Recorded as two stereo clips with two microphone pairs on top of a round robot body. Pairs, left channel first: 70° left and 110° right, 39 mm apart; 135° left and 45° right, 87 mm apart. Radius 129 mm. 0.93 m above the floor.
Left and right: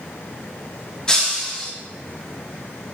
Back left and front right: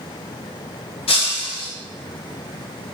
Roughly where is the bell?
No bell in this recording.